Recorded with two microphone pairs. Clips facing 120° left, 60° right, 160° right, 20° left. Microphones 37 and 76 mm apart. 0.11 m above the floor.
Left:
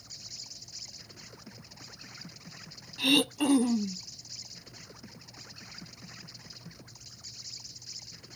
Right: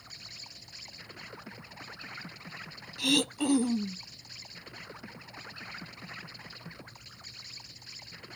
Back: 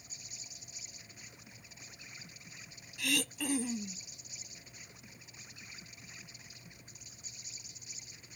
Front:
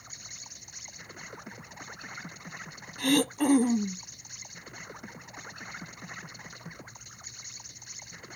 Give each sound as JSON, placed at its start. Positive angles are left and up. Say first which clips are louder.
{"t": 0.0, "sound": "an insect", "louder": "right 1 dB, front 6 dB", "azimuth_deg": -5}
{"t": 3.0, "sound": "throat clearing", "louder": "left 2 dB, front 11 dB", "azimuth_deg": 50}